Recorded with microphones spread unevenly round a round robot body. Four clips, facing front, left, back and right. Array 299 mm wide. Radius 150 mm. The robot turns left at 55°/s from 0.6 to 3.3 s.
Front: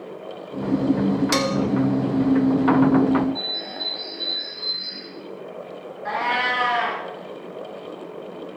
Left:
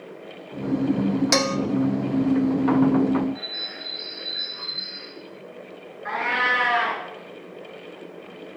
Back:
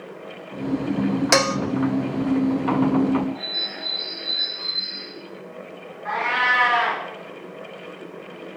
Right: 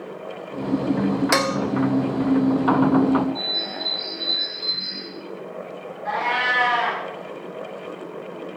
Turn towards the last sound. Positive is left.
turn(degrees=30)